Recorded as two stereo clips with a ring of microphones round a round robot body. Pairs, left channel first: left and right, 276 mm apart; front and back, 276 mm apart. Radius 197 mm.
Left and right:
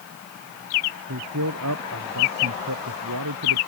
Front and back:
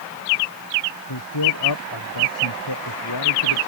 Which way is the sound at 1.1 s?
35° right.